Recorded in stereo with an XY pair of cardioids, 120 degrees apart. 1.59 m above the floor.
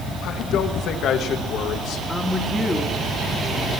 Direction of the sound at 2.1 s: 15° left.